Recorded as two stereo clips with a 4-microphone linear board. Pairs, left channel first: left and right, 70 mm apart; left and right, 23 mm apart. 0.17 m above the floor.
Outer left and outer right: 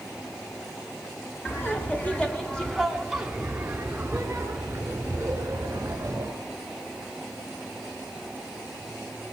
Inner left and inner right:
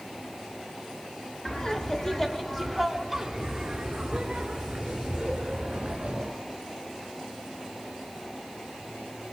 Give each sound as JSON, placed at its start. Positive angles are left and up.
{"t": 1.4, "sound": "laughter", "side_deg": 35, "distance_m": 1.7}